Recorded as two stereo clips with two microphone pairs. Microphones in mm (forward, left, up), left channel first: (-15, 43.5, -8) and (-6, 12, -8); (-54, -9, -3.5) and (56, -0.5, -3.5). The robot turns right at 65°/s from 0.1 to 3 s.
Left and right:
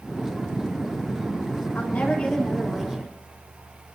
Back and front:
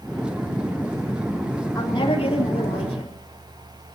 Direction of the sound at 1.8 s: 130° left.